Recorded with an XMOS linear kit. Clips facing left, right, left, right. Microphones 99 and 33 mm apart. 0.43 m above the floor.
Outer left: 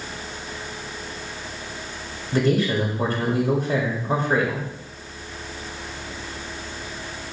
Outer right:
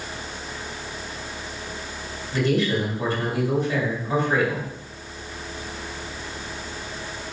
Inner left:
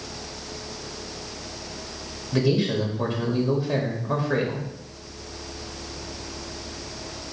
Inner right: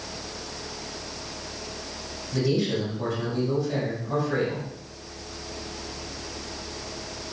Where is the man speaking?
45° left (ahead or behind), 1.7 m.